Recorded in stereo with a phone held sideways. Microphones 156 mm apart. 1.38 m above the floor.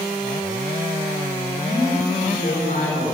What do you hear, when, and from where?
1.6 s a man speaking: 85° left, 5 m